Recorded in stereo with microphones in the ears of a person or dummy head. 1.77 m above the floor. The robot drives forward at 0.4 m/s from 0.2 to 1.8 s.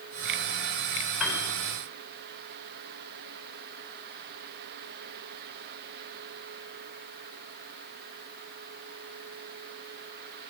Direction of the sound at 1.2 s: 5° right (ahead or behind).